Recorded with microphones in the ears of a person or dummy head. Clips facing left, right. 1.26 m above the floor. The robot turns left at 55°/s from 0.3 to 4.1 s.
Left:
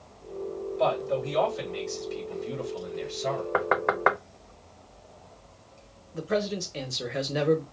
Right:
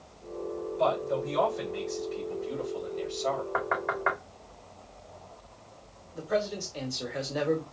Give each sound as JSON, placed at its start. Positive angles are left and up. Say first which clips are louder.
{"t": 0.8, "sound": "a man speaking", "louder": "left 1 dB", "azimuth_deg": 155, "distance_m": 3.0}
{"t": 3.5, "sound": "knocking", "louder": "left 5 dB", "side_deg": 50, "distance_m": 0.6}
{"t": 6.1, "sound": "a man speaking", "louder": "left 2 dB", "side_deg": 35, "distance_m": 1.1}